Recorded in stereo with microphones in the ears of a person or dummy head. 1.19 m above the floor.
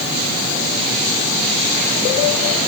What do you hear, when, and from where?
Only background noise.